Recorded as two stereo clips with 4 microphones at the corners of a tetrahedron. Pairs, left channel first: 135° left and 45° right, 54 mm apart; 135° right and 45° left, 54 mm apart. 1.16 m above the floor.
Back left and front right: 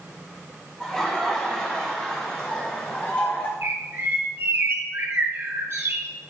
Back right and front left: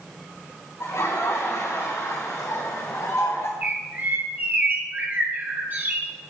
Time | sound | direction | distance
0.8 | laughter | 145° right | 2.5 m
3.6 | a bird | 10° right | 1.3 m